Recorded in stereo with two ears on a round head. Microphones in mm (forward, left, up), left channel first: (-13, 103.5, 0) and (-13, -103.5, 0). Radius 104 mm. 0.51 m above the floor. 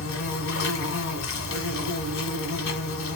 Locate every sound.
0.0 s an insect: 60° left (ahead or behind), 1.4 m